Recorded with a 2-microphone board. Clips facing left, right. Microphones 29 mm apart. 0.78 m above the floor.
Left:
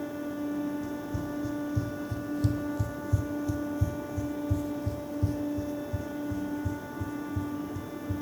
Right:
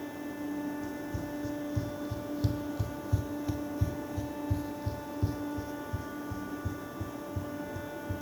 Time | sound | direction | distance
0.8 | running footsteps | 10° right (ahead or behind) | 2 m